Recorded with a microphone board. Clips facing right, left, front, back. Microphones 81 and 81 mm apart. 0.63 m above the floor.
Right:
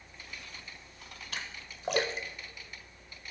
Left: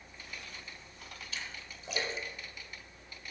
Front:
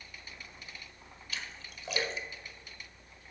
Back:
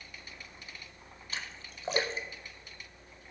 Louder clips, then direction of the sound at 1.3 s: Right 3 dB, back 1 dB; 125° right.